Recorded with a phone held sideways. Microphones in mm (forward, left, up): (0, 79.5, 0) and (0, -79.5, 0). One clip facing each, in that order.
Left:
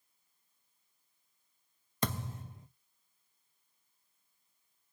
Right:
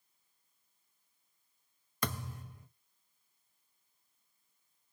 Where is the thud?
25° left (ahead or behind), 1.3 m.